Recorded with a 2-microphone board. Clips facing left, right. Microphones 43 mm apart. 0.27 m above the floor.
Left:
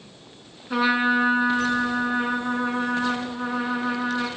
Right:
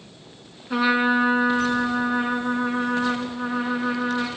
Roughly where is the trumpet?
Centre.